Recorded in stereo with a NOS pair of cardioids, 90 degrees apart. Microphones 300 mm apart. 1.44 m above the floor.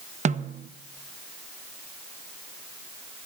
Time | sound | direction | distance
0.2 | a snare drum | 25° right | 0.8 m